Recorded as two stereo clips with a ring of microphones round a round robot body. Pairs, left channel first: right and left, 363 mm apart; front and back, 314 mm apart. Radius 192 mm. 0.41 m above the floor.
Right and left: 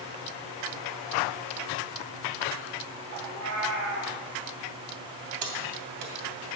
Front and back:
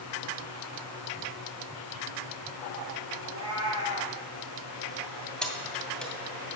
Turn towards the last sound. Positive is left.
turn(degrees=90)